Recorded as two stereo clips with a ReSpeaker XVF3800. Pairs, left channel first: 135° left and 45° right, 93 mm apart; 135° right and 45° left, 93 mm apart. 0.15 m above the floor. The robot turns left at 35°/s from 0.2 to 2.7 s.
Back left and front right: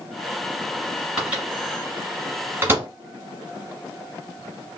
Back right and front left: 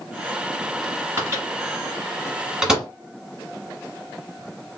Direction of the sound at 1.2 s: 25° left.